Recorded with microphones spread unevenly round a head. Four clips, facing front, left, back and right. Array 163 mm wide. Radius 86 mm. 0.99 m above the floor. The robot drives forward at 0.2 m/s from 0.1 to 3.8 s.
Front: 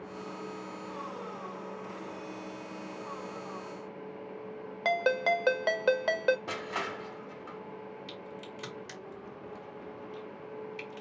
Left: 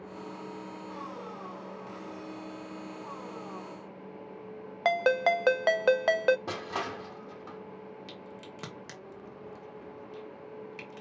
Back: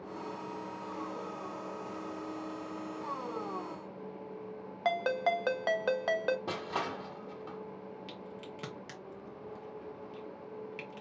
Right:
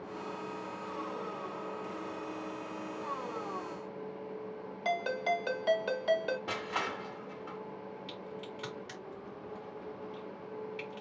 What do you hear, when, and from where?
4.8 s a ringtone: 65° left, 0.6 m
6.5 s crushing: 130° left, 0.9 m
8.1 s a crack: 115° left, 1.3 m